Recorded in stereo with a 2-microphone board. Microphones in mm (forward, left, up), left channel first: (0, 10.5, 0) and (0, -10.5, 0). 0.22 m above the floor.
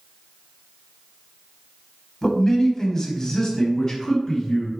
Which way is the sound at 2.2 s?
15° left (ahead or behind).